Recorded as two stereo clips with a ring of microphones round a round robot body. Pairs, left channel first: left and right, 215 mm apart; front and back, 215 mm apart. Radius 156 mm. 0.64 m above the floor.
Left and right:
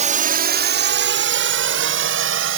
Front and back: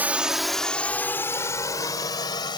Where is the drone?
100° right; by 2.6 s 75° right.